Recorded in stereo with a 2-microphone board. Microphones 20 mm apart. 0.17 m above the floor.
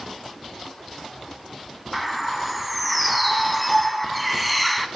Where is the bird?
5° left (ahead or behind), 0.5 m.